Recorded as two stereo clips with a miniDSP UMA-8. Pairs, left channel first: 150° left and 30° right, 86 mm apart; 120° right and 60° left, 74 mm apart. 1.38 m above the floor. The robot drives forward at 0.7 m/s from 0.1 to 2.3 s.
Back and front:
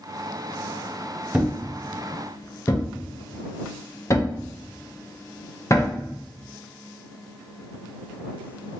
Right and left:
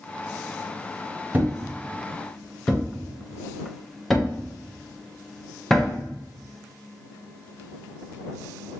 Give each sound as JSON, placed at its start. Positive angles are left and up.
{"t": 1.3, "sound": "a thud", "azimuth_deg": 35, "distance_m": 0.7}